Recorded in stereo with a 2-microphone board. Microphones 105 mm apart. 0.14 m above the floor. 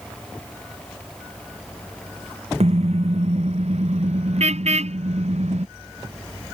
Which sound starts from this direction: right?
A car horn, at 2.6 s.